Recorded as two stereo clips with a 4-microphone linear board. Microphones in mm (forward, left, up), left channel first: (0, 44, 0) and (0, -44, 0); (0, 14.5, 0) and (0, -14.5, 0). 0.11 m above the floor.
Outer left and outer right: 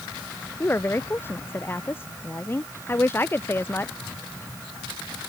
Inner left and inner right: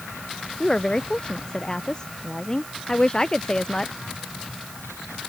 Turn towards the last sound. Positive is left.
turn(degrees=25)  # may be behind; listen again after turning